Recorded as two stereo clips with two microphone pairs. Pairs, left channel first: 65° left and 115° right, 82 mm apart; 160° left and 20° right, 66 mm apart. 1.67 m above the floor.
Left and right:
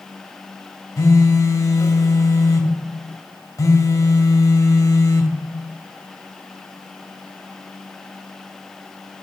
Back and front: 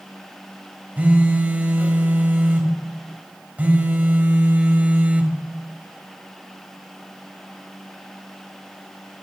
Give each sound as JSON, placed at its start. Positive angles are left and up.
{"t": 1.0, "sound": "a phone buzzing", "azimuth_deg": 30, "distance_m": 1.5}